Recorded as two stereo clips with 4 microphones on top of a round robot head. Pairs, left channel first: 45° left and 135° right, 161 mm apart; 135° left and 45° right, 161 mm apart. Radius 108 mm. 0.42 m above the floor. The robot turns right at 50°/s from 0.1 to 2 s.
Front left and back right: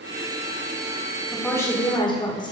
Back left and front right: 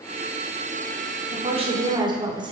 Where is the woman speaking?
35° right, 1.6 m; by 2.5 s straight ahead, 1.6 m.